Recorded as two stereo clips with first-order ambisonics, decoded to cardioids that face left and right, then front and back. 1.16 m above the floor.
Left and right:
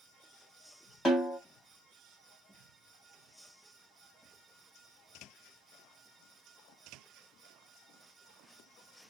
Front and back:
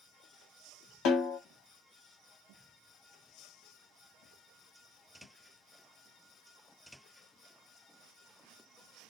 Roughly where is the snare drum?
Ahead.